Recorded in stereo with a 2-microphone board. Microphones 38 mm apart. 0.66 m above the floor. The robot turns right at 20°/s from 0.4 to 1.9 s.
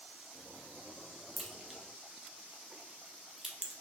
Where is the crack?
10° right (ahead or behind), 1.0 m; by 3.7 s 15° right (ahead or behind), 1.0 m.